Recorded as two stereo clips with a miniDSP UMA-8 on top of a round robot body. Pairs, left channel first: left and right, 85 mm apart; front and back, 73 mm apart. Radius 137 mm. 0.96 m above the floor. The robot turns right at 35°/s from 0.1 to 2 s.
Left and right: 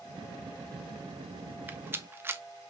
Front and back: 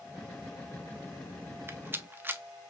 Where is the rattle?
150° right, 0.7 m; by 2.4 s 135° right, 0.7 m.